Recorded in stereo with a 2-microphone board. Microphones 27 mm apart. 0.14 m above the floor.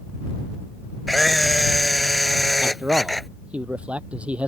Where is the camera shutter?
5° left (ahead or behind).